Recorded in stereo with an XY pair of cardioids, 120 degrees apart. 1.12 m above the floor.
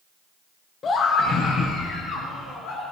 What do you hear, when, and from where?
0.8 s a scream: 40° left, 0.9 m; by 2.8 s 75° left, 2 m